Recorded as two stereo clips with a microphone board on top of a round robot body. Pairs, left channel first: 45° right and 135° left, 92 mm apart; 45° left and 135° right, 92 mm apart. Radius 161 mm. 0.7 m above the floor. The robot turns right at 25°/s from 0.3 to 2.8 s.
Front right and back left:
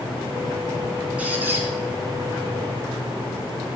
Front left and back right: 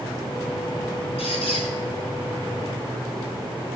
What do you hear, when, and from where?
1.2 s a squeak: 60° left, 2.5 m; by 1.7 s 70° left, 2.5 m